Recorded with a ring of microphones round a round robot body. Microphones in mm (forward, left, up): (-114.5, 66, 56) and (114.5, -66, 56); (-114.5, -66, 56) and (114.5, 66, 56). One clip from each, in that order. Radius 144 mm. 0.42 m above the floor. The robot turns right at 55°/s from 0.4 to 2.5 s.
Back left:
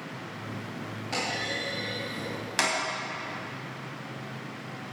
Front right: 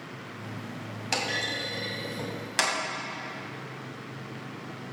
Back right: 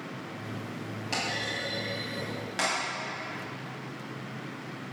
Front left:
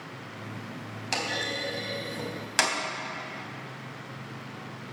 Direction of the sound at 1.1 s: 25° right.